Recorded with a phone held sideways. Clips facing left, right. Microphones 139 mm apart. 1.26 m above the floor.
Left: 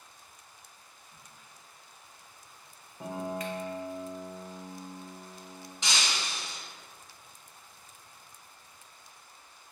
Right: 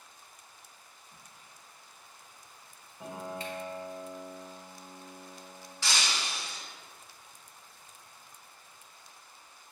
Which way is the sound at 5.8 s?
20° left (ahead or behind).